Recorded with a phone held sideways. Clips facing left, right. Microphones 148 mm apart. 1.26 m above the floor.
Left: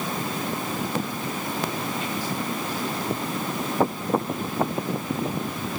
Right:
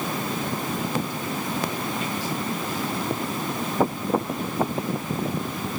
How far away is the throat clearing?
No throat clearing in this recording.